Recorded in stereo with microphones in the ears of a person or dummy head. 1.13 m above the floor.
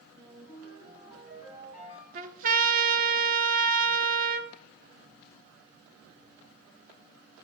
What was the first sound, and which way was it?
A ringtone, 10° right (ahead or behind).